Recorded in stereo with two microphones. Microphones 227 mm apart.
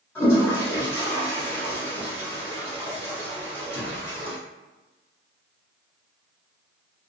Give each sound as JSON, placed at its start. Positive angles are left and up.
{"t": 0.1, "sound": "a toilet flushing", "side_deg": 10, "distance_m": 1.0}